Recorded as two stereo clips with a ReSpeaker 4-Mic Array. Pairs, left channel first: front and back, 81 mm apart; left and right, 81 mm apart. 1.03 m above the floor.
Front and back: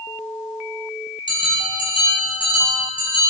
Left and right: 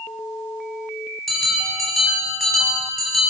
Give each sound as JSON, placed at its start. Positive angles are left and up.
{"t": 1.3, "sound": "a bell", "azimuth_deg": 0, "distance_m": 10.0}